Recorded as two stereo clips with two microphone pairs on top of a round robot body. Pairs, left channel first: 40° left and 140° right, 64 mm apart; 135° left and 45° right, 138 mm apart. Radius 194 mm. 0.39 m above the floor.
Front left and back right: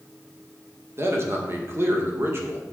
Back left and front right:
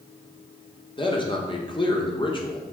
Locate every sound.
1.0 s a man speaking: straight behind, 1.8 m